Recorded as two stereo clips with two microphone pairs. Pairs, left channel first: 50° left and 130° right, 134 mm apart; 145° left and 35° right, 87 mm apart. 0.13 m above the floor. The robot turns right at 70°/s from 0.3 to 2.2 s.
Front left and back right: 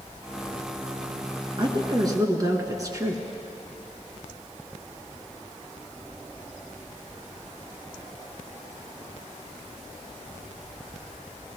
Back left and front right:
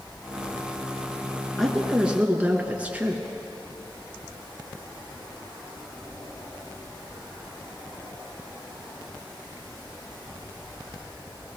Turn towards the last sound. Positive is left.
turn(degrees=-90)